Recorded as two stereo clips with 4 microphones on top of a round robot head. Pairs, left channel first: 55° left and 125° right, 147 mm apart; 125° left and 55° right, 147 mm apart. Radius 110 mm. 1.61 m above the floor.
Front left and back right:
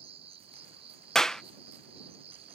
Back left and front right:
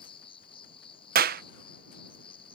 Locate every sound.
0.0 s an insect: straight behind
1.1 s a clap: 30° right